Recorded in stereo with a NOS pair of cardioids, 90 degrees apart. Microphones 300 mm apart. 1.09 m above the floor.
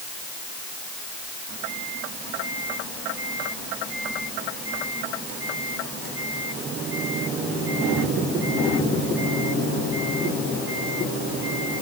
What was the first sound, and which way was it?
Only background noise.